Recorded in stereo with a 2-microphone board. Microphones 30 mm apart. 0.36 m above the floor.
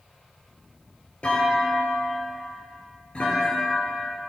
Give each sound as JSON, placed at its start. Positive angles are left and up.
{"t": 1.2, "sound": "a clunk", "side_deg": 45, "distance_m": 4.5}